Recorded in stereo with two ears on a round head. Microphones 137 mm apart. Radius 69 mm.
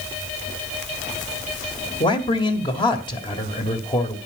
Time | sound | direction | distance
2.0 | a man speaking | 35° left (ahead or behind) | 2 m